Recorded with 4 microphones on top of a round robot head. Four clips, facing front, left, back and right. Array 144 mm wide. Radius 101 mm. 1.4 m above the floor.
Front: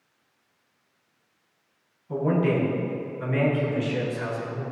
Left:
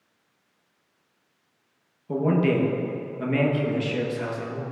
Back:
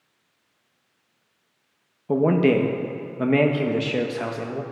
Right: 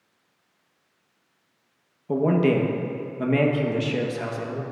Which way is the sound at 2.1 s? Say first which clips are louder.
Right 2 dB, back 5 dB; 165° right.